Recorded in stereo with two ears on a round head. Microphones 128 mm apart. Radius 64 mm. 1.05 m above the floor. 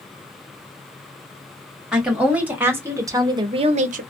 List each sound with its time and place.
1.9 s a woman speaking: 5° right (ahead or behind), 1.6 m; by 4.0 s 65° right (ahead or behind), 0.6 m